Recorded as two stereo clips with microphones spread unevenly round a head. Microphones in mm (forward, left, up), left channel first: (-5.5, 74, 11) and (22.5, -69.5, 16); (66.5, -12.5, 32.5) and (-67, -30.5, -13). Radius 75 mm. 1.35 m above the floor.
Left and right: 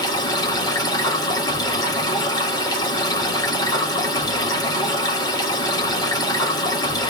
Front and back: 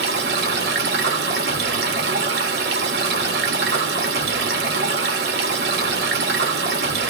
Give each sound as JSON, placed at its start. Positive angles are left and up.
{"t": 0.0, "sound": "running water", "azimuth_deg": 165, "distance_m": 1.7}